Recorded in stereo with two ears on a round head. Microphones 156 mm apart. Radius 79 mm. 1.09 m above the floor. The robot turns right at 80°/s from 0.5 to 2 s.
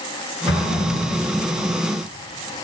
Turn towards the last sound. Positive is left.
turn(degrees=-150)